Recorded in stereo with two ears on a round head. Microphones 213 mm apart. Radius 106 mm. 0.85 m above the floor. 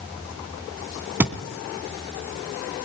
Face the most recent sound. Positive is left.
turn(degrees=-10)  # may be behind; listen again after turning